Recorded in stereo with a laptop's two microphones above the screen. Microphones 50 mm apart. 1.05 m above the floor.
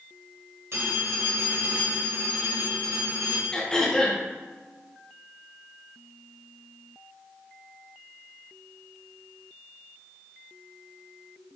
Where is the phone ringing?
65° right (ahead or behind), 2.5 m.